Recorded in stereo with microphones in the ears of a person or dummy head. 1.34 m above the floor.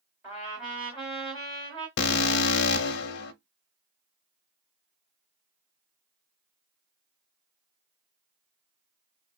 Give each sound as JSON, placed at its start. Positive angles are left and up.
{"t": 0.2, "sound": "a trumpet", "side_deg": -10, "distance_m": 1.3}
{"t": 2.0, "sound": "an alarm", "side_deg": 60, "distance_m": 0.6}